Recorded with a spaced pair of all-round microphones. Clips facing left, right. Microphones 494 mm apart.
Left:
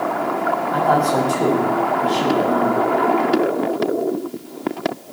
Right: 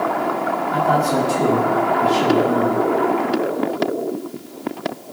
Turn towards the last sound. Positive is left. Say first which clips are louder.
# even
turn(degrees=-45)  # may be behind; listen again after turning